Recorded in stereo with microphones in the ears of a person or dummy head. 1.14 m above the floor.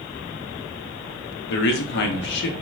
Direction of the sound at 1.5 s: 65° left (ahead or behind).